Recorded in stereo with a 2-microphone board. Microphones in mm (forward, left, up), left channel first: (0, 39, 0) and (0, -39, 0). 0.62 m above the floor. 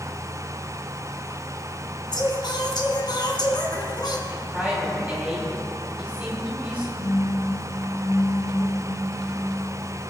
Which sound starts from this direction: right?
A phone buzzing, at 7.0 s.